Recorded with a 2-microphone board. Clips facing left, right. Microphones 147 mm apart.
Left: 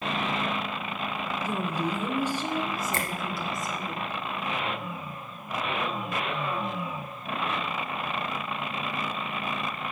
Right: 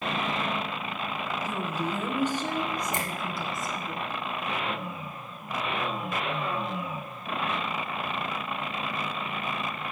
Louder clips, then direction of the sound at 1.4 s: Left 3 dB; 15° left (ahead or behind).